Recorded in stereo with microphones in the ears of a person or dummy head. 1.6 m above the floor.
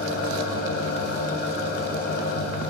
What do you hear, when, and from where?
0.0 s an engine running: 50° left (ahead or behind), 1.2 m